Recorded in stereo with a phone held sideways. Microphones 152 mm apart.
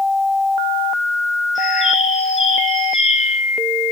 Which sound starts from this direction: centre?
A bird, at 1.6 s.